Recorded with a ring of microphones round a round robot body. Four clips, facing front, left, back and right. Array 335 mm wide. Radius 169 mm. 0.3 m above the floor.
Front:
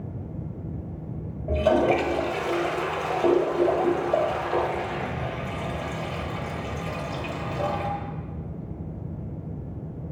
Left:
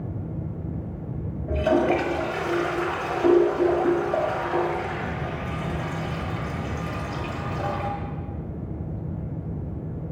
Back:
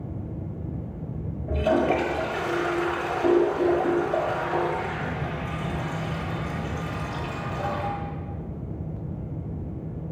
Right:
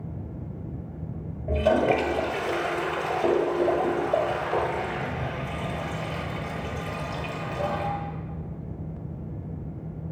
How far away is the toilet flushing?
About 1.1 m.